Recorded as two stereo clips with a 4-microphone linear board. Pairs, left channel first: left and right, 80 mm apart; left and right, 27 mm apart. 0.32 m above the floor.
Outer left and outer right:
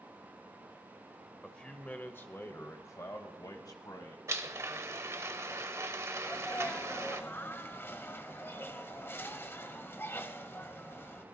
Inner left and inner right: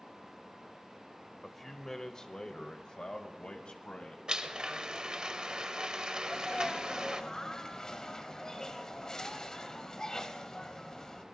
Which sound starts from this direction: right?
A blender, at 4.3 s.